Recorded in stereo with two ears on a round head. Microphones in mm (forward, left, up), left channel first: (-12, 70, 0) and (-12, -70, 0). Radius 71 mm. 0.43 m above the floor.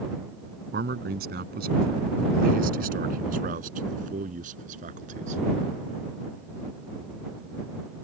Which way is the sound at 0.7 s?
75° right (ahead or behind).